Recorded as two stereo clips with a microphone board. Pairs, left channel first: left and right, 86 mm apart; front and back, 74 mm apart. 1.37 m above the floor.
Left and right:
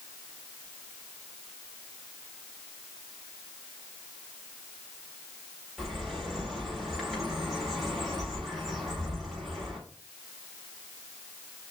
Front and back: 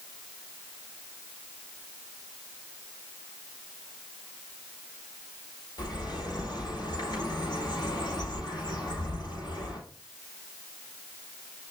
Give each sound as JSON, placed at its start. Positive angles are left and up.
{"t": 5.8, "sound": "a bird", "azimuth_deg": 0, "distance_m": 5.5}